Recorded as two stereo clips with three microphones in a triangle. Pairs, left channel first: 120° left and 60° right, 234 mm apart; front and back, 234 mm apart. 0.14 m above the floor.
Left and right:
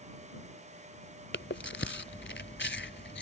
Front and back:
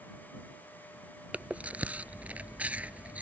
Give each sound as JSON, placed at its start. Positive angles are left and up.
{"t": 1.3, "sound": "chewing", "azimuth_deg": 95}